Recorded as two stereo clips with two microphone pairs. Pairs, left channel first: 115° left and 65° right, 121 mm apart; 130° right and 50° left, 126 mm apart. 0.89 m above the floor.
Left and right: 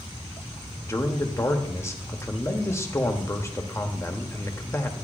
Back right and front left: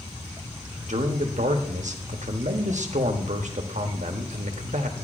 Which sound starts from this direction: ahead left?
A man speaking, at 0.8 s.